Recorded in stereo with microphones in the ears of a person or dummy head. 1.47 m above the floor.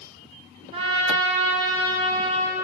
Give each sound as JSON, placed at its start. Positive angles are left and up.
{"t": 0.7, "sound": "a trumpet", "side_deg": -35, "distance_m": 1.2}